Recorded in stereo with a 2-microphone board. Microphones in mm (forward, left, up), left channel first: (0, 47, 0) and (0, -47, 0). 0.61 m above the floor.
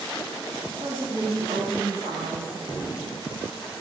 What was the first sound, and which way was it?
A woman speaking, 80° right.